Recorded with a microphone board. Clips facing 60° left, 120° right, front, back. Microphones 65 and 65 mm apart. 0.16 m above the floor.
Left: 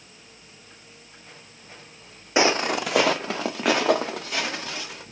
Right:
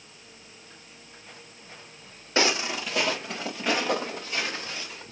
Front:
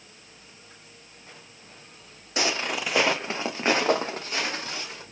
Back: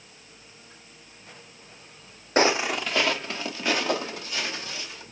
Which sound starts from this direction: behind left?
Footsteps, at 2.4 s.